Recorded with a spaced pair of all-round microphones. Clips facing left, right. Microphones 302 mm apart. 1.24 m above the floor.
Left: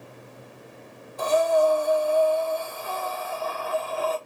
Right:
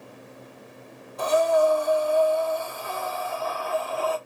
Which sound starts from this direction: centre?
Breathing, at 1.2 s.